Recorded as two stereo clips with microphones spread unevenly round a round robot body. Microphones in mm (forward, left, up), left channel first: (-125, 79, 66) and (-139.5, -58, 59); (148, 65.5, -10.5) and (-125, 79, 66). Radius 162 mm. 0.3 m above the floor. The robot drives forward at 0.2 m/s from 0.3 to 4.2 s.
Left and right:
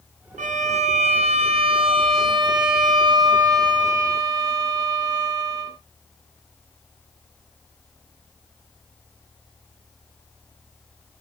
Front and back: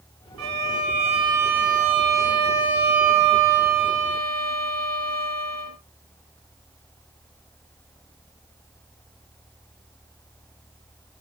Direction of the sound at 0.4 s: 135° right.